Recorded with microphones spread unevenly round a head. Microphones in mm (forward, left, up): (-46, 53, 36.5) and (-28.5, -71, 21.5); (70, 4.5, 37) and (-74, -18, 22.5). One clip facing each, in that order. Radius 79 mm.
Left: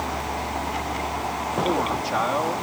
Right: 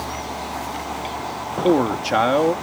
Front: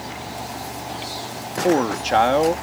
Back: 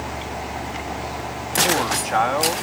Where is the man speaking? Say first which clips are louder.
Right 9 dB, front 6 dB; 45° right.